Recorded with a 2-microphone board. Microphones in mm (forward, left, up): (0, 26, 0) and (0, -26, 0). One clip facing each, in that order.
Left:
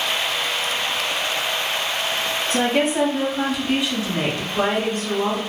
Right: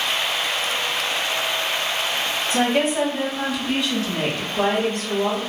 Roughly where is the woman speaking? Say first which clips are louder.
Even; centre.